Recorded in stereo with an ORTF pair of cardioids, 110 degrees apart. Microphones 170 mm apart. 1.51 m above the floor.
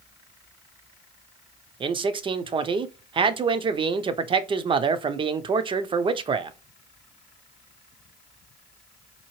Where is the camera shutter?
No camera shutter in this recording.